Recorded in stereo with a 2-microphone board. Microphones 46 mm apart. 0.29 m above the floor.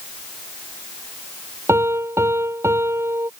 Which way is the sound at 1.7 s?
70° right (ahead or behind).